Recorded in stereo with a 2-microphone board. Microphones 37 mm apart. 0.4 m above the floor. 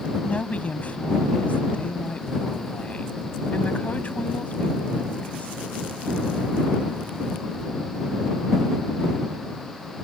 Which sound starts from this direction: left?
A woman speaking, at 0.2 s.